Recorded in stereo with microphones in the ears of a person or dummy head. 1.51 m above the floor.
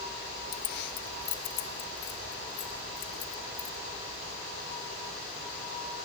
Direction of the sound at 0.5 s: 50° left (ahead or behind).